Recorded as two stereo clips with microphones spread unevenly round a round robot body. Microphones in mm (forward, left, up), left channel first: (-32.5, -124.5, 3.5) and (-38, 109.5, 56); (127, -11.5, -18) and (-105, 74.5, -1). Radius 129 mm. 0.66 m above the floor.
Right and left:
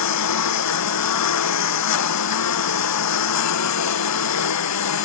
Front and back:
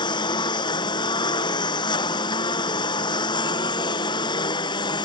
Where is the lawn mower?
95° right.